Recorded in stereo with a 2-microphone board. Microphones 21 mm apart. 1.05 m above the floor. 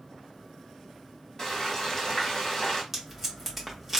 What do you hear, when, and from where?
1.4 s frying: 25° left (ahead or behind), 1.4 m
2.9 s tape being pulled: 10° right (ahead or behind), 1.2 m